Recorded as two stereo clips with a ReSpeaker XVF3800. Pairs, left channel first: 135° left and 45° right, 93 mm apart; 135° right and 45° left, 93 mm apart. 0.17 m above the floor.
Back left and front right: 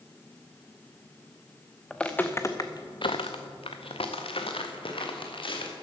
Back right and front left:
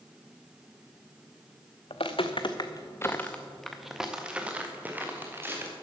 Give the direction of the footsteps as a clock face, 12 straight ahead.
5 o'clock.